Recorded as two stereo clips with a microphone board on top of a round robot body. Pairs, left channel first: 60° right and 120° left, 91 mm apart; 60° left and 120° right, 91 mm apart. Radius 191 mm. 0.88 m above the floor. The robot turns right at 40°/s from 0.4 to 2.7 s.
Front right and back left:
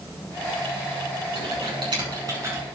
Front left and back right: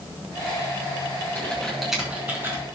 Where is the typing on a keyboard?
130° left, 6 m; by 2.7 s 175° right, 6 m.